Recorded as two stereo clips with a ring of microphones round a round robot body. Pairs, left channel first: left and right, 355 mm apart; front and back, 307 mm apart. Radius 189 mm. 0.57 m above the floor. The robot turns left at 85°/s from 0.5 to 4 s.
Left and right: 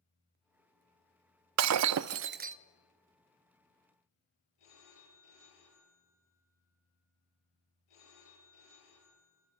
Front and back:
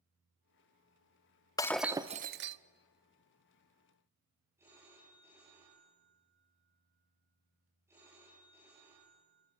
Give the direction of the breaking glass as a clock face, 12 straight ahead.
2 o'clock.